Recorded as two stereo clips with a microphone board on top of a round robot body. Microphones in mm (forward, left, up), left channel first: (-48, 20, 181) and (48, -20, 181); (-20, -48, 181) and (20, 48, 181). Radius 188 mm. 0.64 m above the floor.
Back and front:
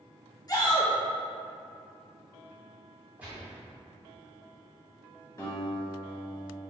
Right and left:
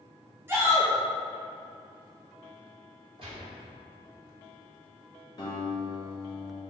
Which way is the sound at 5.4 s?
155° right.